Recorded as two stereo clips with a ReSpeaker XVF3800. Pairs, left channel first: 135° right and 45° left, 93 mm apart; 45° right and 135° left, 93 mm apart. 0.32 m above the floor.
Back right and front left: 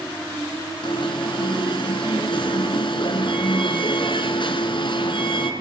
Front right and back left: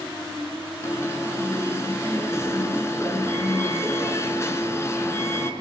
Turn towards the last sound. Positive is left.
turn(degrees=-105)